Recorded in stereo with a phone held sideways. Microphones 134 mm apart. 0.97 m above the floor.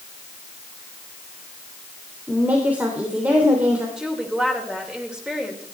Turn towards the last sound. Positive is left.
turn(degrees=-5)  # may be behind; listen again after turning